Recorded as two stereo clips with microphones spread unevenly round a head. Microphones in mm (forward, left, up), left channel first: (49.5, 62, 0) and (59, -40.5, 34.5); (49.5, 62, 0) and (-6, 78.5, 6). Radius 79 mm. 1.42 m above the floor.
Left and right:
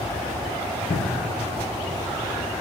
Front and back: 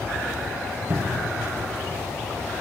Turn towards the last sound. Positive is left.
turn(degrees=115)